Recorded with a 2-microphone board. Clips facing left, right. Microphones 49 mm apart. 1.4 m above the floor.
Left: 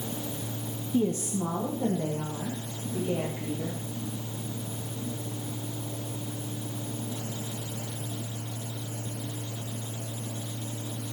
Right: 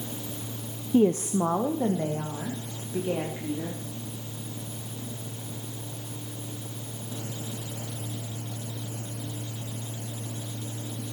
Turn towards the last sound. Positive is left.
turn(degrees=-50)  # may be behind; listen again after turning